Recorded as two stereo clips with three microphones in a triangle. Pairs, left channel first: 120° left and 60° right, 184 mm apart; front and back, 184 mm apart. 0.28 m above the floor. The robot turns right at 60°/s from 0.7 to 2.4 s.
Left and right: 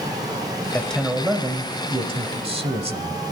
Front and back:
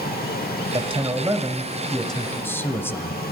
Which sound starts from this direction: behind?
A man speaking, at 0.7 s.